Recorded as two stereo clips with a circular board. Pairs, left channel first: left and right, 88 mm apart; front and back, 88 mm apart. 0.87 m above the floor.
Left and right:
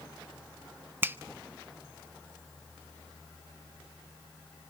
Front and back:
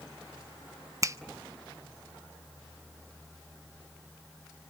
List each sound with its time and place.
1.0 s a finger snap: 145° right, 0.6 m